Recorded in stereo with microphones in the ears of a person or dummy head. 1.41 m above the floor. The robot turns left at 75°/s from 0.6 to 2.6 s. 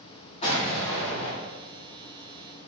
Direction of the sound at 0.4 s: 145° left.